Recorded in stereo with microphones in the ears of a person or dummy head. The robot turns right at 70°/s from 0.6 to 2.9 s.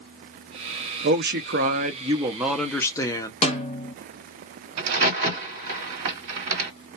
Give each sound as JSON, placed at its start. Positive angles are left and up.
{"t": 1.0, "sound": "a man speaking", "azimuth_deg": -110, "distance_m": 0.5}
{"t": 3.4, "sound": "a snare drum", "side_deg": 35, "distance_m": 0.9}
{"t": 4.8, "sound": "a crack", "side_deg": -50, "distance_m": 1.8}